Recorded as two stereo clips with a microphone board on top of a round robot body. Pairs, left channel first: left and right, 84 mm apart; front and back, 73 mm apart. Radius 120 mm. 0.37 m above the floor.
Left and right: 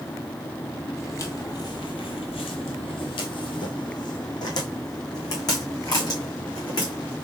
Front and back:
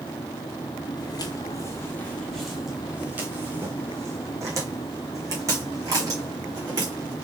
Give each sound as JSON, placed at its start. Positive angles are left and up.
{"t": 1.0, "sound": "footsteps", "azimuth_deg": 30, "distance_m": 0.9}